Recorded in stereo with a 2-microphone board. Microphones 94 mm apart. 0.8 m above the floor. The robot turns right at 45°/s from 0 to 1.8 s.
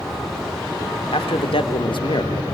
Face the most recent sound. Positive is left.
turn(degrees=115)